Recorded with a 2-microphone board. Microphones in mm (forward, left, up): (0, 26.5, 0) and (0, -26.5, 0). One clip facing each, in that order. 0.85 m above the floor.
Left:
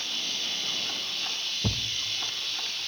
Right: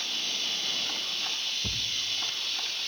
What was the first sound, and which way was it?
A thud, 40° left (ahead or behind).